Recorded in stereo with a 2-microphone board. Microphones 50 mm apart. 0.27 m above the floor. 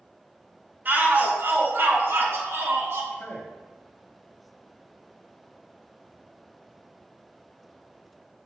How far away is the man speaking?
About 1.0 m.